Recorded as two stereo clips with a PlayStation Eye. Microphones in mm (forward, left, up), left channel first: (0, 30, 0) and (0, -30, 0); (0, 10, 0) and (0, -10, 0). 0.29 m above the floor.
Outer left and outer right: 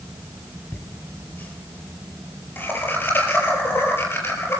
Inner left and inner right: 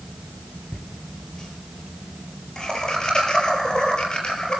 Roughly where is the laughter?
Left.